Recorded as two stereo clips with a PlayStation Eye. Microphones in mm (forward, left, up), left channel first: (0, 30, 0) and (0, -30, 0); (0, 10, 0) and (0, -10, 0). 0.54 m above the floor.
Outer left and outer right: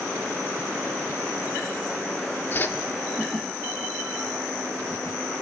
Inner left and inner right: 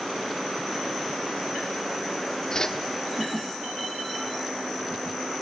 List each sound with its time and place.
2.5 s a whoosh: 40° left (ahead or behind), 1.2 m